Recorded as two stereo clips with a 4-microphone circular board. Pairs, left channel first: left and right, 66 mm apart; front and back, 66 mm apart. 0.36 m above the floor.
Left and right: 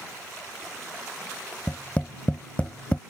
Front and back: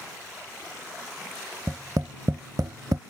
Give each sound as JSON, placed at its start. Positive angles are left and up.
{"t": 1.7, "sound": "tapping", "azimuth_deg": 155}